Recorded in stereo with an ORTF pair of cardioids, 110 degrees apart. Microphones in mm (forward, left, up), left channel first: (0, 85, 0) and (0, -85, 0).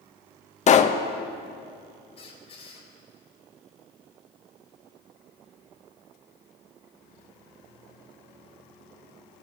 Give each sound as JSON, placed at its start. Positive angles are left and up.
{"t": 0.7, "sound": "a pop", "azimuth_deg": 40, "distance_m": 0.9}
{"t": 2.2, "sound": "a squeak", "azimuth_deg": 35, "distance_m": 4.0}